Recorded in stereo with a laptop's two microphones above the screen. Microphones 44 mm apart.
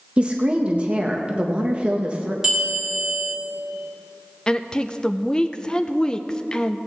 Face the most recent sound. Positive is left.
turn(degrees=15)  # may be behind; listen again after turning